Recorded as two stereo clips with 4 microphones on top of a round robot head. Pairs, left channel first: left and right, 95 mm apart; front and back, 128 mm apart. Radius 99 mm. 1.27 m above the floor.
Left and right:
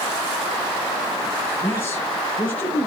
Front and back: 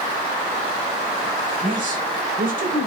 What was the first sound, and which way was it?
A man speaking, 165° left.